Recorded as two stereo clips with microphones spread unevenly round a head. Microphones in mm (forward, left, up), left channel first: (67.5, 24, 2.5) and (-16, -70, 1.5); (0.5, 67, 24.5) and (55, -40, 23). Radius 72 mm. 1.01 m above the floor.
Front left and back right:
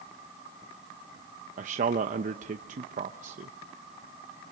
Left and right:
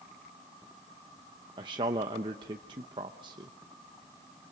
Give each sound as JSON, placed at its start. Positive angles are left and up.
{"t": 1.6, "sound": "a man speaking", "azimuth_deg": -115, "distance_m": 0.8}